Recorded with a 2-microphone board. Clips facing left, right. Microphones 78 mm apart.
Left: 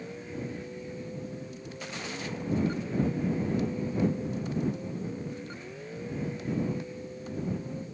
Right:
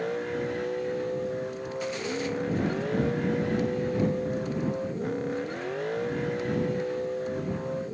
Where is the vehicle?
65° right (ahead or behind).